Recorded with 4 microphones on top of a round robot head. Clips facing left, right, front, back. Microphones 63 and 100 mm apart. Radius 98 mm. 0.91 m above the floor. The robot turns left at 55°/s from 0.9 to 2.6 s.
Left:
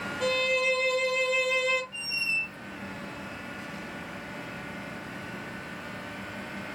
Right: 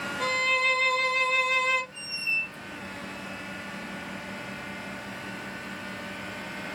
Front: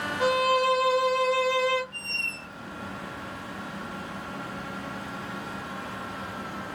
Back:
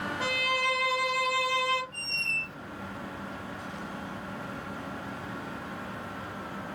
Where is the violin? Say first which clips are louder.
Even, front 10 dB; 80° right, 1.1 m; by 1.8 s 130° right, 1.1 m.